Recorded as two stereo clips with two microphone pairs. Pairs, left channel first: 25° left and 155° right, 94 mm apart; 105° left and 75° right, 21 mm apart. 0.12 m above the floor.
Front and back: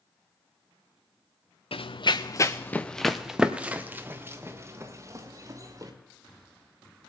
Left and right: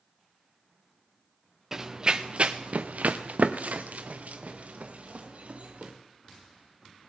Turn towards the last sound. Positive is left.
turn(degrees=-100)